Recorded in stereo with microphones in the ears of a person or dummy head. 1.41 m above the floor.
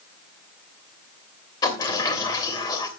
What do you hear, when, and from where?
1.6 s a sliding door: 20° left (ahead or behind), 3 m